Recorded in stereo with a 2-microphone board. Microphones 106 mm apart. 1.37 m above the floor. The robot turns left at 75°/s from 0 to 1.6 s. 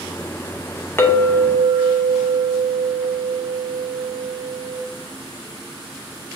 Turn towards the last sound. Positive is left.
turn(degrees=-15)